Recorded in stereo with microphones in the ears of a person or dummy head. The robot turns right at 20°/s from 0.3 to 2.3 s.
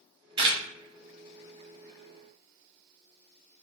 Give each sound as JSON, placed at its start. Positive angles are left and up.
{"t": 0.4, "sound": "a camera shutter", "side_deg": -25, "distance_m": 0.5}